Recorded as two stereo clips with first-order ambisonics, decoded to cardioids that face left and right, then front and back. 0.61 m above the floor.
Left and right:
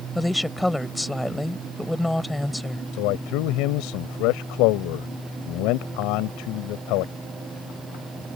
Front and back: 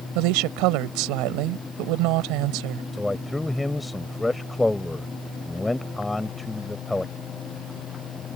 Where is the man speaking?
85° left.